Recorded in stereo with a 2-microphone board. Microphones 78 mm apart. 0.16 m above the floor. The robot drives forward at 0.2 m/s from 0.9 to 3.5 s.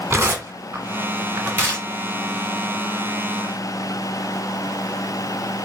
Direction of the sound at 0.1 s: 25° right (ahead or behind).